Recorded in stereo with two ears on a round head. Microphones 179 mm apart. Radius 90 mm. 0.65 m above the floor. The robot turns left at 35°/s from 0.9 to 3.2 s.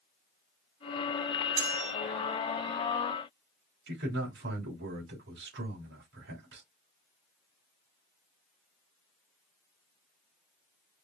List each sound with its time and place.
1.6 s cutlery clinking: 30° right (ahead or behind), 2 m; by 1.9 s 40° right (ahead or behind), 2 m
3.9 s a man speaking: 50° right (ahead or behind), 3 m